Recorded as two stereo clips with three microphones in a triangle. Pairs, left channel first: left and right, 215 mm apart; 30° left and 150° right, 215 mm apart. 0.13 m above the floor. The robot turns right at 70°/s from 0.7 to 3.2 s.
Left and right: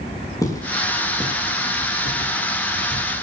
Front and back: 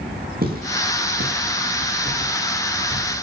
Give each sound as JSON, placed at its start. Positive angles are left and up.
{"t": 0.4, "sound": "footsteps", "azimuth_deg": 165, "distance_m": 9.0}